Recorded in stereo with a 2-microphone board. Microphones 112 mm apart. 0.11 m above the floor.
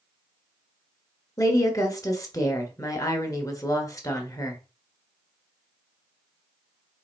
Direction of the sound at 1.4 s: 30° left (ahead or behind).